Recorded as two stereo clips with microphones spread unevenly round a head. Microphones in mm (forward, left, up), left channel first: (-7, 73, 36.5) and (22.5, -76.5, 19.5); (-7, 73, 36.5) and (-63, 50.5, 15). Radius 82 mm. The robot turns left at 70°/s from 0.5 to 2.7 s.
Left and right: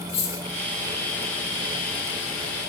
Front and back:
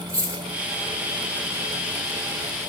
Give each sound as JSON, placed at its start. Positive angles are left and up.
{"t": 0.1, "sound": "a dropped coin", "azimuth_deg": 145, "distance_m": 1.3}